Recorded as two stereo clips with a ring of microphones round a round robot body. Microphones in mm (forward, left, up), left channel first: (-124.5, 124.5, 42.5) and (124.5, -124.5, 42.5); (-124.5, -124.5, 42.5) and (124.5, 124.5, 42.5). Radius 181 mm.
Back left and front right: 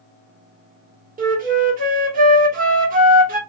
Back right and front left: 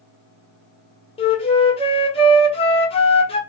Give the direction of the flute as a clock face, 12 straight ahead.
3 o'clock.